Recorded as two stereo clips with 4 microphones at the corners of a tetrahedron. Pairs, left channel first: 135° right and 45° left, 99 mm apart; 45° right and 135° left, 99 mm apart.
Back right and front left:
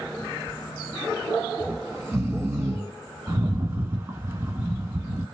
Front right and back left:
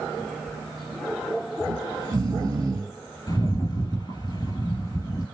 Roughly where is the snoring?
Left.